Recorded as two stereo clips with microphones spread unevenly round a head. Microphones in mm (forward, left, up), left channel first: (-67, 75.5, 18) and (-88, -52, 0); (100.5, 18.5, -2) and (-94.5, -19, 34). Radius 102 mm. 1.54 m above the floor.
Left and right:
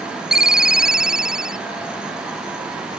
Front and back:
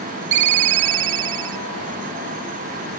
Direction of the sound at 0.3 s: 175° left.